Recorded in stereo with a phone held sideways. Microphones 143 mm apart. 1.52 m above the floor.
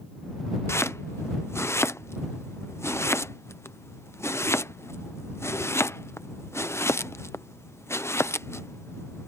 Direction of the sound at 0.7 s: 20° left (ahead or behind).